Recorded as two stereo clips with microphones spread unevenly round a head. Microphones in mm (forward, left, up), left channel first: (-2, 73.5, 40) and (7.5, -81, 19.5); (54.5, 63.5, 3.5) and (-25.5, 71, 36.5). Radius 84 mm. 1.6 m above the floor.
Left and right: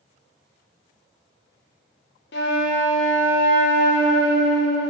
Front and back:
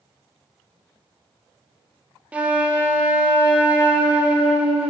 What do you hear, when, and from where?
2.3 s a flute: 110° left, 0.5 m